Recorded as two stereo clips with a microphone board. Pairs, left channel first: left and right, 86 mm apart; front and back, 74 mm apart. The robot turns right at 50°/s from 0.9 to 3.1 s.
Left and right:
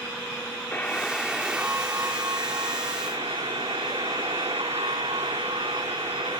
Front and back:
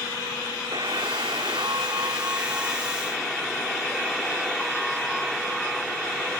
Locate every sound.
0.7 s a buzzer: 160° left; by 6.4 s 90° right